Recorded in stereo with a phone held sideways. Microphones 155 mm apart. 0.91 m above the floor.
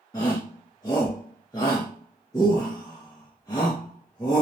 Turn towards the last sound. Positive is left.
turn(degrees=25)  # may be behind; listen again after turning